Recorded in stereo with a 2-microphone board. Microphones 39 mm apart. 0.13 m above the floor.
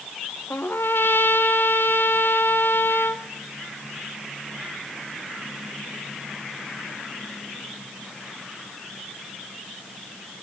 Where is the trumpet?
65° left (ahead or behind), 0.9 m.